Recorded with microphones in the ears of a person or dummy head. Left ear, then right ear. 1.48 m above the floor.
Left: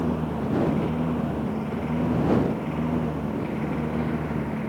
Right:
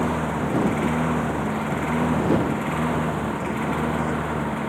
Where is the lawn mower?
55° right (ahead or behind); by 4.7 s 45° right (ahead or behind).